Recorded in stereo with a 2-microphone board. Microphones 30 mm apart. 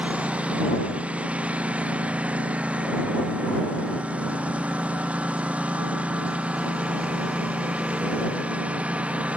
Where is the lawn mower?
50° right (ahead or behind).